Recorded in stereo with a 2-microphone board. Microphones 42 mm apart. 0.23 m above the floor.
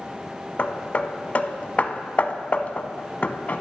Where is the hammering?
40° left (ahead or behind), 0.7 m.